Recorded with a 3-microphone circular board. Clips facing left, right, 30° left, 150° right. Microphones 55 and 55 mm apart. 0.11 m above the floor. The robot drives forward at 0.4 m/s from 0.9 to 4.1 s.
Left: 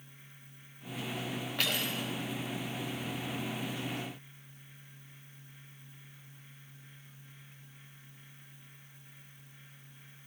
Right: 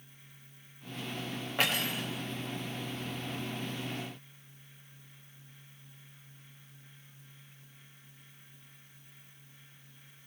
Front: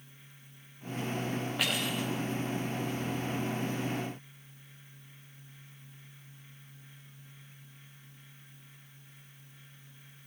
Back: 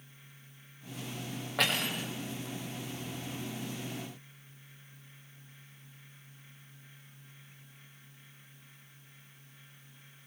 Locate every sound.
1.6 s cutlery clinking: 160° right, 7.5 m